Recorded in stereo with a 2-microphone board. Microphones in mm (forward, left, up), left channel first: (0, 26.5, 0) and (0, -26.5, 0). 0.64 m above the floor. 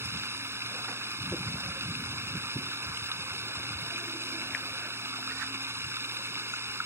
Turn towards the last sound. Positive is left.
turn(degrees=-55)  # may be behind; listen again after turning